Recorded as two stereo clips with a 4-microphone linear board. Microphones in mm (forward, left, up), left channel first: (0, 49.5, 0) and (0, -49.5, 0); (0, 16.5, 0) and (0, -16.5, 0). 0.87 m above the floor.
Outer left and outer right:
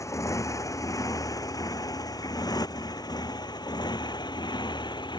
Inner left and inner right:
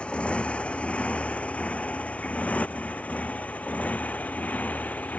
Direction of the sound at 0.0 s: 30° left (ahead or behind).